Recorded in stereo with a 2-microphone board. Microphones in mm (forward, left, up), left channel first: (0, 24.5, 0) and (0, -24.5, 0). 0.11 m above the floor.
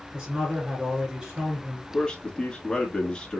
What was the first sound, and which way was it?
A man speaking, 10° right (ahead or behind).